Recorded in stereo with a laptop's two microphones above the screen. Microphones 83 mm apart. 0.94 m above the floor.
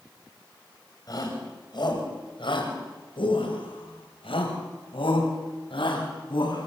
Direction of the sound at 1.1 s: 45° left (ahead or behind).